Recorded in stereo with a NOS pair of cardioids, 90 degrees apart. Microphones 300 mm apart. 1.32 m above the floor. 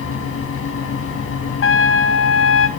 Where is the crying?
No crying in this recording.